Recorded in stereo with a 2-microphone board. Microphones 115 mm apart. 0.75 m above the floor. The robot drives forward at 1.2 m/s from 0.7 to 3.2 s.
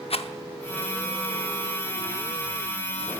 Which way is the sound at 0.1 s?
60° left (ahead or behind).